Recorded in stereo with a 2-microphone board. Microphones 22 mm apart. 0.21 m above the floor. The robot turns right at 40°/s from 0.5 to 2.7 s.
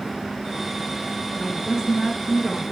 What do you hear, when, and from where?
1.4 s a woman speaking: 30° right, 2 m; by 2.6 s 20° left, 2 m